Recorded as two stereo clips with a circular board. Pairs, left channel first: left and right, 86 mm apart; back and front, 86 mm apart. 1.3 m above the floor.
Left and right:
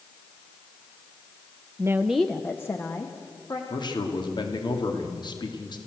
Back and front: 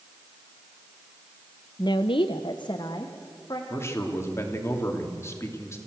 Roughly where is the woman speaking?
Behind right.